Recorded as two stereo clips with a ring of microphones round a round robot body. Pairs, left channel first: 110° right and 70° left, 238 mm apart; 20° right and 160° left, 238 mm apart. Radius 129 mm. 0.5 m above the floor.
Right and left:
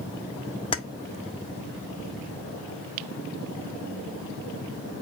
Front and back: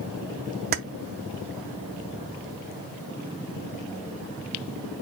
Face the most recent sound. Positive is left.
turn(degrees=-175)